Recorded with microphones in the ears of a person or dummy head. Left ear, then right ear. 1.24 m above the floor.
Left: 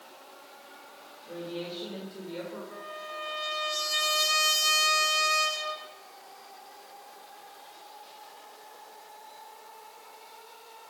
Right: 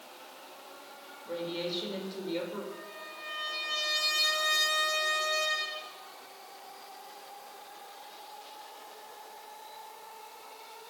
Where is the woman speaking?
25° right (ahead or behind), 1.7 m.